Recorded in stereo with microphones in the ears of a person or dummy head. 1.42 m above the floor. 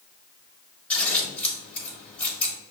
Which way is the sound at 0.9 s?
10° left (ahead or behind).